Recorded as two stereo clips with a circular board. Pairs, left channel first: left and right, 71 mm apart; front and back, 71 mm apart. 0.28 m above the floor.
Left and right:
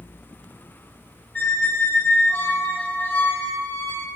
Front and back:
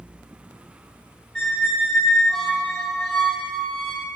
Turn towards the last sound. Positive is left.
turn(degrees=70)